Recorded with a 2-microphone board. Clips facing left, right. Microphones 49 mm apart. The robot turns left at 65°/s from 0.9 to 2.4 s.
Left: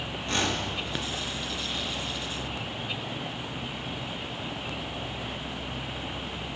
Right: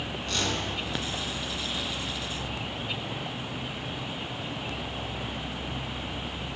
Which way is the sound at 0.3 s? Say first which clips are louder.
Left 2 dB; 25° left (ahead or behind).